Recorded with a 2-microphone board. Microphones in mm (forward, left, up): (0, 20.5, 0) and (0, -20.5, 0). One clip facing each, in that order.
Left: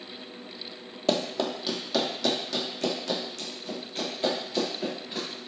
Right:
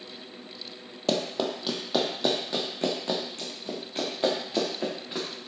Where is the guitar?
I don't hear a guitar.